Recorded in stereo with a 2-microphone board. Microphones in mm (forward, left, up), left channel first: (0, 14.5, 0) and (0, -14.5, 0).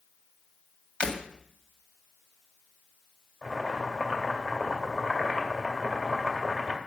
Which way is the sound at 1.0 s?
40° left (ahead or behind).